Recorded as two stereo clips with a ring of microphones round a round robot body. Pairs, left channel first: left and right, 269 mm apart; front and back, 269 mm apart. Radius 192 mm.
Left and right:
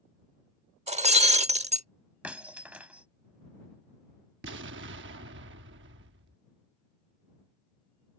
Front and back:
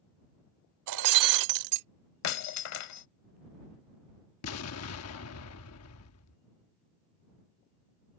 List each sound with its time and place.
0.9 s breaking glass: 160° right
2.2 s breaking glass: 5° right
4.4 s an explosion: 35° right